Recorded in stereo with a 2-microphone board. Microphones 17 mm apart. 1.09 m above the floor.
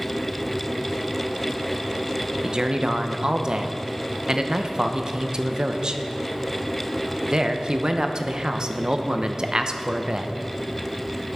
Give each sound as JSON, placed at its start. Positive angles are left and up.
{"t": 2.4, "sound": "a man speaking", "side_deg": -50, "distance_m": 0.7}